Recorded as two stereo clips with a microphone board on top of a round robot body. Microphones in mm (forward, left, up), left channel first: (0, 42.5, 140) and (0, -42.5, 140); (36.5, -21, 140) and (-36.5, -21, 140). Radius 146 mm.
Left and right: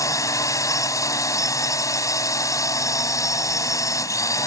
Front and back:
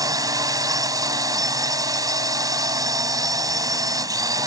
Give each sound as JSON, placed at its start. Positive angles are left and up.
{"t": 0.0, "sound": "a drone", "azimuth_deg": 140}